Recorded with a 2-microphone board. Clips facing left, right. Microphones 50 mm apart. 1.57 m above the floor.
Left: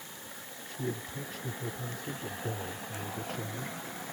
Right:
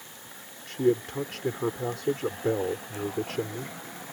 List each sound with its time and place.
0.7 s a man speaking: 90° right